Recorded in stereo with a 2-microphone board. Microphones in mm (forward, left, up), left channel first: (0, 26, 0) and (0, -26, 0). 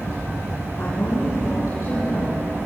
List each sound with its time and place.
0.8 s a woman speaking: 80° left, 8 m; by 2.3 s 70° left (ahead or behind), 8 m